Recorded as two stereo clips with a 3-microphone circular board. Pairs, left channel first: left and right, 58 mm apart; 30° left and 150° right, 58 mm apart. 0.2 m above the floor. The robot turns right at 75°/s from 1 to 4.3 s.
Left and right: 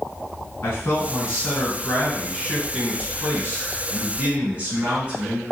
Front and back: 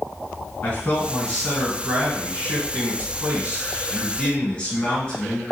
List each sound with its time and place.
0.6 s a man speaking: 75° left, 1.8 m; by 5.4 s 35° right, 1.8 m